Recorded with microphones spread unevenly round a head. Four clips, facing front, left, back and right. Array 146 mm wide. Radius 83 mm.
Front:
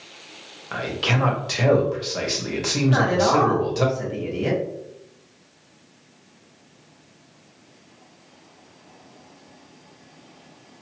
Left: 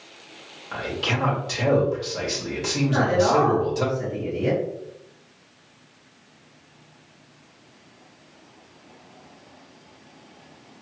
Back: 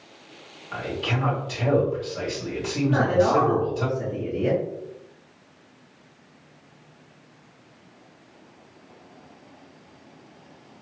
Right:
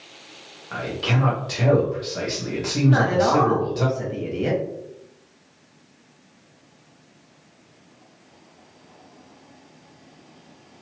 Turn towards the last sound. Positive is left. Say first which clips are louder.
# right 1 dB, front 1 dB
turn(degrees=-35)